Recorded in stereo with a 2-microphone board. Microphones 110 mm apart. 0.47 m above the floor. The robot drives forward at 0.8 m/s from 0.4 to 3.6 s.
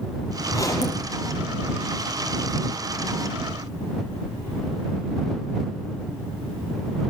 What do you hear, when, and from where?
0.5 s a zipper: 30° left (ahead or behind), 8 m